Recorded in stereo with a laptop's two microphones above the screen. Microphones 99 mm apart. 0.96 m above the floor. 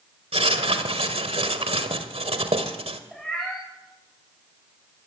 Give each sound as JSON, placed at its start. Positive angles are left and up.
{"t": 0.3, "sound": "writing", "side_deg": -80, "distance_m": 1.9}
{"t": 3.1, "sound": "a cat meowing", "side_deg": 0, "distance_m": 5.5}